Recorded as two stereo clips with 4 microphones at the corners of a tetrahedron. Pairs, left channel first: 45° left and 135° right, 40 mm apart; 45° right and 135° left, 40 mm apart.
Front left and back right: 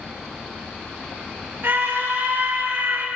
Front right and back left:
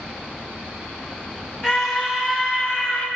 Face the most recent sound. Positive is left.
turn(degrees=-105)